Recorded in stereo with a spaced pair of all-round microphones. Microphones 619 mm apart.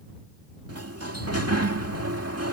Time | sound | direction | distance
0.7 | a sliding door | 25° right (ahead or behind) | ?